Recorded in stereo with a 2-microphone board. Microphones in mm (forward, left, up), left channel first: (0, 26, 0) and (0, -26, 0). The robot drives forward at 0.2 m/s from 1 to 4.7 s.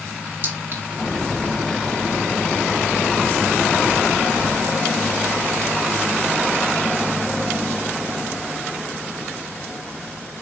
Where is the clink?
45° right (ahead or behind), 1.4 m.